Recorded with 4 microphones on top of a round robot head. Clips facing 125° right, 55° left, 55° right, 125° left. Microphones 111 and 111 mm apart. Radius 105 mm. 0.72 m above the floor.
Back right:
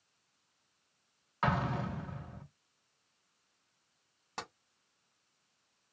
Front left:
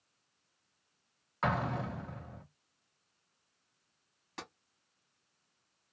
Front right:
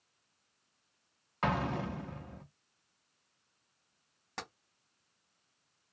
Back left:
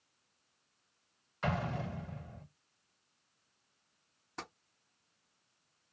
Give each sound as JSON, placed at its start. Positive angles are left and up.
{"t": 1.4, "sound": "an explosion", "azimuth_deg": -35, "distance_m": 1.0}
{"t": 4.4, "sound": "tapping", "azimuth_deg": -75, "distance_m": 1.7}